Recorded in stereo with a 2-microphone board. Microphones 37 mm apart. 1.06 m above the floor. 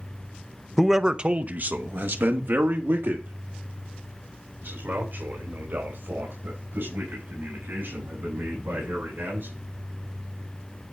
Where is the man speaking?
5° right (ahead or behind), 0.6 m; by 9.5 s 80° right, 6.5 m.